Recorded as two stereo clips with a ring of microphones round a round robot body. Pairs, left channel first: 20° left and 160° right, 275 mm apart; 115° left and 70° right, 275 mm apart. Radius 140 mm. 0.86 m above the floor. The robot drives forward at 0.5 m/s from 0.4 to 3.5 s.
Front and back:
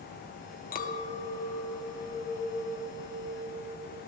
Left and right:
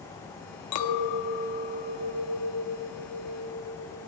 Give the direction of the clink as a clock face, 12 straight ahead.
9 o'clock.